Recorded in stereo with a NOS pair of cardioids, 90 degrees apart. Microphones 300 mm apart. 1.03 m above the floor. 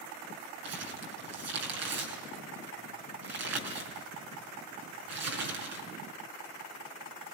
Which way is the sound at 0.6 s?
55° right.